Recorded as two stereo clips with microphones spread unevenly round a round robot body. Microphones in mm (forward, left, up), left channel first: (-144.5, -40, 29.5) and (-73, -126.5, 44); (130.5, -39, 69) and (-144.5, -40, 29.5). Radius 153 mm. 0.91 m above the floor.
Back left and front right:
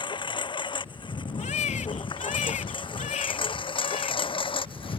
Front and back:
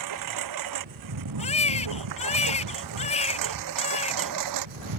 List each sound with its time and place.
0.0 s a lawn mower: 175° left; by 5.0 s 170° left
1.4 s a baby crying: 70° left